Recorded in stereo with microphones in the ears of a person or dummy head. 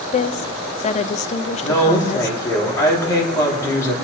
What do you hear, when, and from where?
0.1 s a woman speaking: 35° left (ahead or behind), 0.7 m
1.6 s a woman speaking: 15° left (ahead or behind), 4.5 m